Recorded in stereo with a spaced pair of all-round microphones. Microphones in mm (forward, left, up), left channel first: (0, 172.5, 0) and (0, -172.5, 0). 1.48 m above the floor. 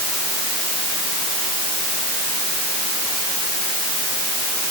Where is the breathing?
No breathing in this recording.